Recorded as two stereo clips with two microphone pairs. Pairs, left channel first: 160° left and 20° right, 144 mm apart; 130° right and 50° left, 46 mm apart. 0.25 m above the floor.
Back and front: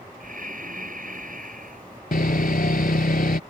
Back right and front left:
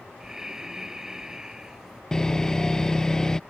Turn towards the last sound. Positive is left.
turn(degrees=150)